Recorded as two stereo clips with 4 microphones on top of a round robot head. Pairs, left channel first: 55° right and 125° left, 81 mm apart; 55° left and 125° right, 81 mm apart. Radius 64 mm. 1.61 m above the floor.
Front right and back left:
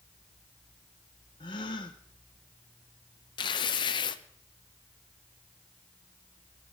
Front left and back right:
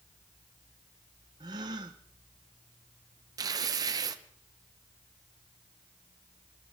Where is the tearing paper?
85° right, 0.8 m.